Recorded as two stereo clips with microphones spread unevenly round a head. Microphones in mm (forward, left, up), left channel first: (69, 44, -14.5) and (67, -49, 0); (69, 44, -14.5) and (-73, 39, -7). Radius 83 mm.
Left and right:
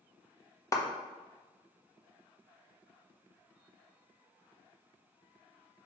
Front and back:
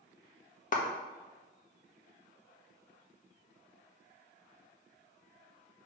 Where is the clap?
30° left, 1.4 m.